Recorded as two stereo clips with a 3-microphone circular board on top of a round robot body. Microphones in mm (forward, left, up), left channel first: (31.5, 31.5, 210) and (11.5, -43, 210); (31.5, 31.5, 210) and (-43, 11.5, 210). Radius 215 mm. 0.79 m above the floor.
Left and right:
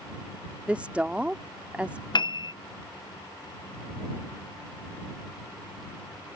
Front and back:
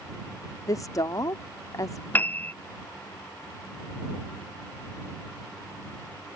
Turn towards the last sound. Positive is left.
turn(degrees=80)